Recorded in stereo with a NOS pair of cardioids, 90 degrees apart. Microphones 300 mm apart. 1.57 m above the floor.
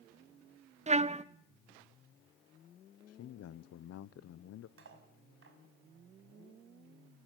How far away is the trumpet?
About 1.1 m.